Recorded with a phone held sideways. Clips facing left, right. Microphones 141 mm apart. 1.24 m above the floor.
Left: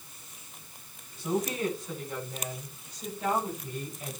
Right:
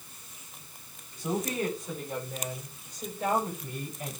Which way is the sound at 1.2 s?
45° right (ahead or behind).